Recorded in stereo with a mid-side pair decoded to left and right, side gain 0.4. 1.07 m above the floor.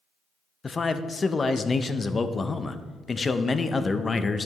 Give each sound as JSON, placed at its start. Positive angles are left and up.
{"t": 0.6, "sound": "a man speaking", "azimuth_deg": 35, "distance_m": 0.7}